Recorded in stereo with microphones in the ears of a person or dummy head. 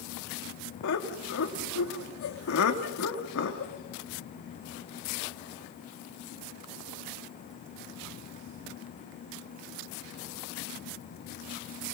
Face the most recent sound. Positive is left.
turn(degrees=75)  # may be behind; listen again after turning